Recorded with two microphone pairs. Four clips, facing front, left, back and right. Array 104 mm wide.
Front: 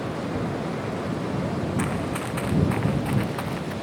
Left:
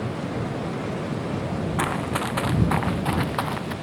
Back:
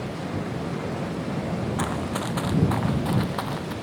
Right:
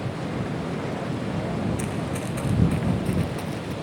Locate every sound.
1.8 s running footsteps: 115° left; by 3.7 s 110° left